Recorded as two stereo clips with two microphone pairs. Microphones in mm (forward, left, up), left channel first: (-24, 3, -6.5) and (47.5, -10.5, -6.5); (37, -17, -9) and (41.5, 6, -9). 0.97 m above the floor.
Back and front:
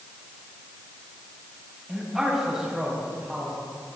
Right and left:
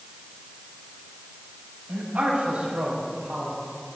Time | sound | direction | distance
1.9 | a man speaking | 70° left | 6.5 m